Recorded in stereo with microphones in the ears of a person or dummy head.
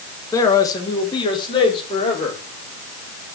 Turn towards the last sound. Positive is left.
turn(degrees=25)  # may be behind; listen again after turning